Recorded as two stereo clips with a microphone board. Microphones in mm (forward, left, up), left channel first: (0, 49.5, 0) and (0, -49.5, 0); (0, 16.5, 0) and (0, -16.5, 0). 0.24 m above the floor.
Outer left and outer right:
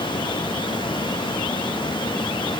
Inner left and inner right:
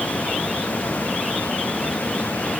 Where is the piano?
No piano in this recording.